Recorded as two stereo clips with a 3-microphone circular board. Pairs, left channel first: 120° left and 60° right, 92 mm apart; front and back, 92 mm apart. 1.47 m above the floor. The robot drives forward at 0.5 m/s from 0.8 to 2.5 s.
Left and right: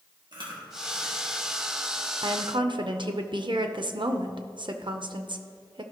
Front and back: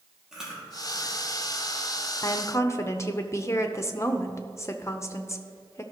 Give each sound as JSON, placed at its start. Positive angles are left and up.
{"t": 0.3, "sound": "chewing", "azimuth_deg": -95, "distance_m": 2.0}
{"t": 2.2, "sound": "a woman speaking", "azimuth_deg": -45, "distance_m": 0.7}